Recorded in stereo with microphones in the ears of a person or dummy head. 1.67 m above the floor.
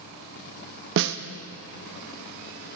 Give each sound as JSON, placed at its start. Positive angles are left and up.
{"t": 1.0, "sound": "a snare drum", "side_deg": -65, "distance_m": 0.7}